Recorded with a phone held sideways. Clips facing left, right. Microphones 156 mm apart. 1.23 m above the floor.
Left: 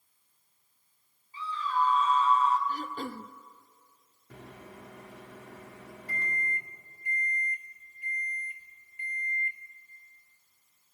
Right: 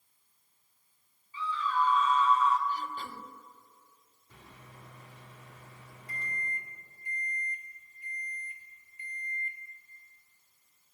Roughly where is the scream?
Left.